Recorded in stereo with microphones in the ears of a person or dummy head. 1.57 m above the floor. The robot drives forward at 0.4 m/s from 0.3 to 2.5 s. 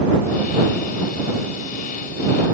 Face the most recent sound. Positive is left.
No sound to turn to.